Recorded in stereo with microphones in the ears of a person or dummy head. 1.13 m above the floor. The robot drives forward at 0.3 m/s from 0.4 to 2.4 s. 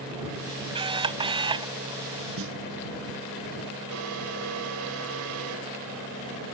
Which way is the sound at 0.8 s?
25° right (ahead or behind).